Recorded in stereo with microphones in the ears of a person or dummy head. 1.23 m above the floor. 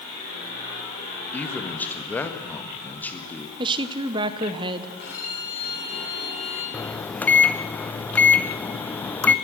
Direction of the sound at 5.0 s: 60° left (ahead or behind).